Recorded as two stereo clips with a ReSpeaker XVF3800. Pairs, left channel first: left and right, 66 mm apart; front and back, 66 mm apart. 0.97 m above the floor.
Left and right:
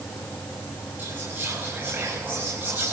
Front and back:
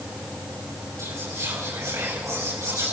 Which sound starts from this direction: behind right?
Whispering, at 1.0 s.